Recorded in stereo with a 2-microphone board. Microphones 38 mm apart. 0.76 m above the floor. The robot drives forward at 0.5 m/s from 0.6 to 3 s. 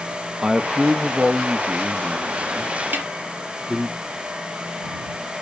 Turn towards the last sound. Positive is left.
turn(degrees=-60)  # may be behind; listen again after turning